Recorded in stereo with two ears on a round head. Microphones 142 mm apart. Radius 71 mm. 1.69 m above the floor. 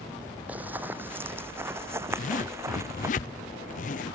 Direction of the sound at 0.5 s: 10° right (ahead or behind).